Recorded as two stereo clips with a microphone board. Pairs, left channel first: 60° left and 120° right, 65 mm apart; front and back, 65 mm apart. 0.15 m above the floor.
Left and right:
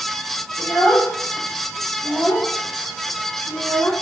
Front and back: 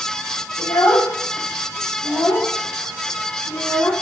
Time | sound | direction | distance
0.6 | a child speaking | 5° left | 5.5 m